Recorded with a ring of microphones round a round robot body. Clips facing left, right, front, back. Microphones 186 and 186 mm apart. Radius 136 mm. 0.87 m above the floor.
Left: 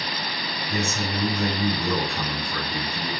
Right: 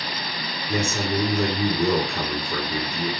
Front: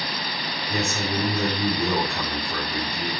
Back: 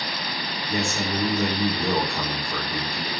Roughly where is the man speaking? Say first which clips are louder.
Right 4 dB, even; right.